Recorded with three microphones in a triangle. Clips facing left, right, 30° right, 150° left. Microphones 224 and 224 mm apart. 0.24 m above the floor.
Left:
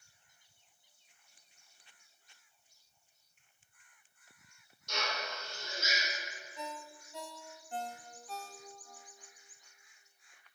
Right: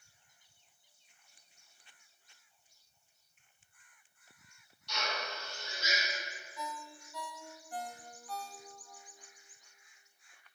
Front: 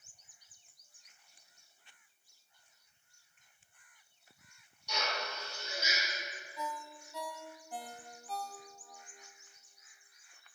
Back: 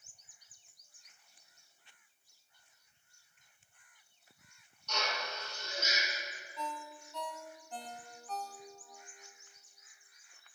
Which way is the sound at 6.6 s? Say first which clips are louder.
Even, even; 45° left.